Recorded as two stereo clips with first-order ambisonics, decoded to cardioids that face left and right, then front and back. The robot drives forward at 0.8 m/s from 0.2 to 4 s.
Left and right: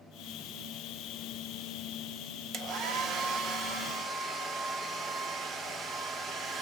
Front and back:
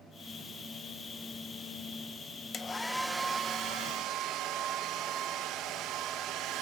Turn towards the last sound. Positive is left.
turn(degrees=-155)